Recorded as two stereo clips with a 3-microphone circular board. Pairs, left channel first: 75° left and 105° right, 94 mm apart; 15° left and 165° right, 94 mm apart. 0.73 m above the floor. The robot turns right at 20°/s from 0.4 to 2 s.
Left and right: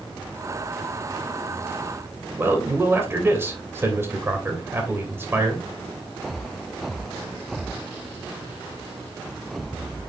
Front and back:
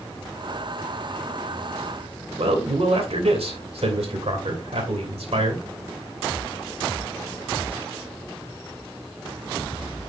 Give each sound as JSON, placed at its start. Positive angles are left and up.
{"t": 2.4, "sound": "a man speaking", "azimuth_deg": -170, "distance_m": 2.5}